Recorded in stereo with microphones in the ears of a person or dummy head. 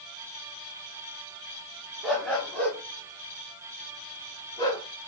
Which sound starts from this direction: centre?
A dog barking, at 2.0 s.